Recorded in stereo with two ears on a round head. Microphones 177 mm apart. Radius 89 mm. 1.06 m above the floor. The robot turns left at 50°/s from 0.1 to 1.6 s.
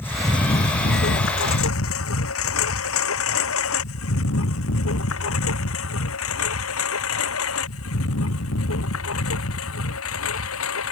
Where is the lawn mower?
10° left (ahead or behind); by 10.9 s 85° left.